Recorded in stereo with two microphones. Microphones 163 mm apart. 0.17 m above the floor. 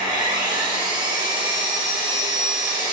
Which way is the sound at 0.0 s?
30° right (ahead or behind).